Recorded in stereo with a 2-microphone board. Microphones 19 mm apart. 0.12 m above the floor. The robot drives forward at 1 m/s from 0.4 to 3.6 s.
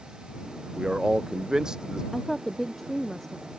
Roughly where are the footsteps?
I don't hear footsteps.